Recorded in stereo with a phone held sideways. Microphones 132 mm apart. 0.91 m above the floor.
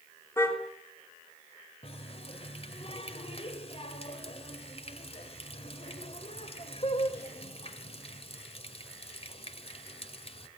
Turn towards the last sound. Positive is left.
turn(degrees=50)  # may be behind; listen again after turning